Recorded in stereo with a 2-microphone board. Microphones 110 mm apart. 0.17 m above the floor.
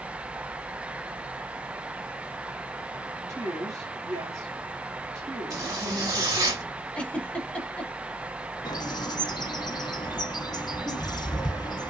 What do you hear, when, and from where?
3.3 s a woman speaking: 30° right (ahead or behind), 1.1 m
5.5 s a zipper: 30° right (ahead or behind), 1.7 m
7.0 s a giggle: 10° left (ahead or behind), 0.6 m
8.7 s a bird: 40° left (ahead or behind), 0.5 m